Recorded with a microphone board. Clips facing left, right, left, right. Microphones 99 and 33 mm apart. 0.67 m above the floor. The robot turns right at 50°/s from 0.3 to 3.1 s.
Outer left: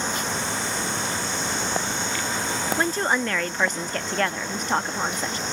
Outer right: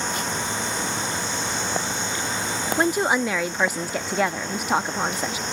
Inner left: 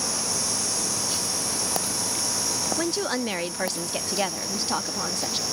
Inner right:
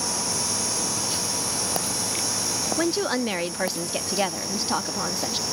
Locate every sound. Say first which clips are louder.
2.8 s a woman speaking: outer right 4 dB, inner right 4 dB; 20° right (ahead or behind); by 5.4 s 10° right (ahead or behind)